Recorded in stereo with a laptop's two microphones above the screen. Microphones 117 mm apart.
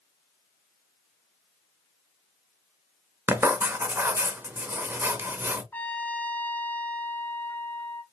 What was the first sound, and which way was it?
Writing, 20° right (ahead or behind).